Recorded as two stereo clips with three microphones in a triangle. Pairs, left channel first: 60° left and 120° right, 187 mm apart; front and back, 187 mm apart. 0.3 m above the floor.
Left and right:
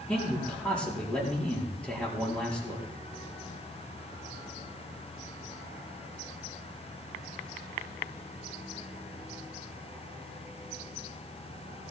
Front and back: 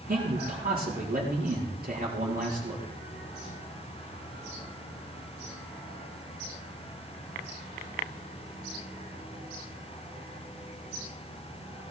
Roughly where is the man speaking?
Behind left.